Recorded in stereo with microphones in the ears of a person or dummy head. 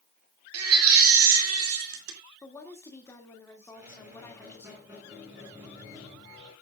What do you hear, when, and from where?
0.5 s a baby crying: 80° right, 2.5 m
2.4 s a woman speaking: 10° left (ahead or behind), 2.5 m
3.7 s a squeak: 15° right (ahead or behind), 8.5 m